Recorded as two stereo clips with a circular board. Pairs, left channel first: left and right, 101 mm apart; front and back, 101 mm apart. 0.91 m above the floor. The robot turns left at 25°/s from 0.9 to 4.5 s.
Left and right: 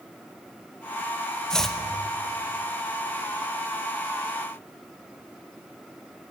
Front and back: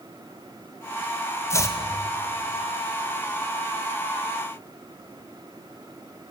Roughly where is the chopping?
Ahead.